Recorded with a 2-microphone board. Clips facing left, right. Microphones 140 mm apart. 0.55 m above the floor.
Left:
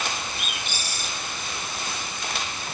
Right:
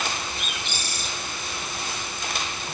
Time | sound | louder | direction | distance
0.4 | a bird | even | 5° left (ahead or behind) | 4.5 m